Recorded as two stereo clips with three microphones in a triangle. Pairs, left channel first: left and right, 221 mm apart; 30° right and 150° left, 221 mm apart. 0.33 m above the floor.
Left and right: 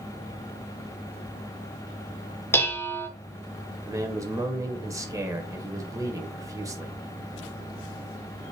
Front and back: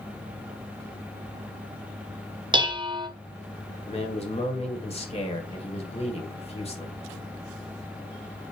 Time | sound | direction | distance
2.5 | dishes clattering | 150° left | 0.5 m
3.9 | a man speaking | 35° right | 0.9 m